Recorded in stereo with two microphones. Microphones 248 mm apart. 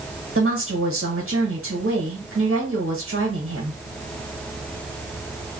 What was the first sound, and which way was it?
A woman speaking, 60° right (ahead or behind).